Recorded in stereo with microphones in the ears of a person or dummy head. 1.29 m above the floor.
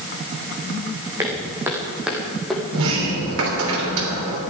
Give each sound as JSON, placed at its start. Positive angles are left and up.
{"t": 1.2, "sound": "footsteps", "side_deg": -15, "distance_m": 3.5}
{"t": 2.7, "sound": "a sliding door", "side_deg": -80, "distance_m": 3.0}